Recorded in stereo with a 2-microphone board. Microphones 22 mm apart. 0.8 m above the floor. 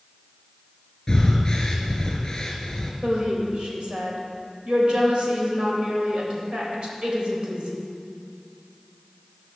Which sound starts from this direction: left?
Breathing, at 1.1 s.